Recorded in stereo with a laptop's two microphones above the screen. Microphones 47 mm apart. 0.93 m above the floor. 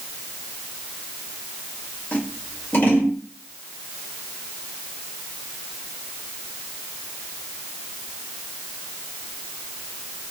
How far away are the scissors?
About 1.6 m.